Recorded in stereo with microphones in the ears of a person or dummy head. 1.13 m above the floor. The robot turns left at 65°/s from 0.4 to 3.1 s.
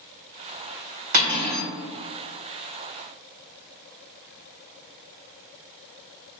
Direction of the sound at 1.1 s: 125° right.